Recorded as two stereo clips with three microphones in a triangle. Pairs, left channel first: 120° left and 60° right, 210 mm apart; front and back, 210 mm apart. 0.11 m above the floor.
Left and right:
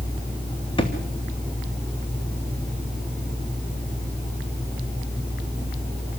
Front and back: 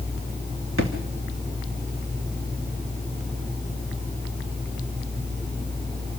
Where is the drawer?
175° right, 2.5 m.